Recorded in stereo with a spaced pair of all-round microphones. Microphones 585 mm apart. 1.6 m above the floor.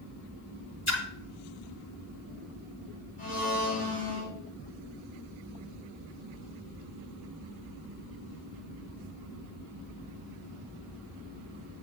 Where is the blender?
65° left (ahead or behind), 3.5 m.